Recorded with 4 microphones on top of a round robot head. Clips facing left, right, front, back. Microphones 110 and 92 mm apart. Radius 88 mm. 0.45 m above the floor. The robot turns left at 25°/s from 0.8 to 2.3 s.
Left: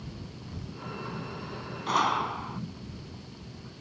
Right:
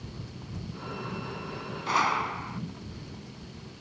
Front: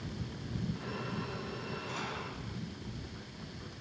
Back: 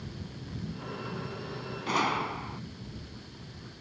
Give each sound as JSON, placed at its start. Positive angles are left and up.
{"t": 1.9, "sound": "a gunshot", "azimuth_deg": 170}